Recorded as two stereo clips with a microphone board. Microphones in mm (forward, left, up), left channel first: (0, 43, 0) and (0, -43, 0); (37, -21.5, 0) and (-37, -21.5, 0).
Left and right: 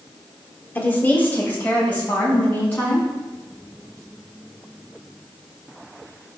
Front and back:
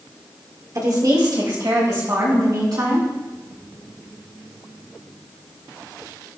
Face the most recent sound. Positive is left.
turn(degrees=160)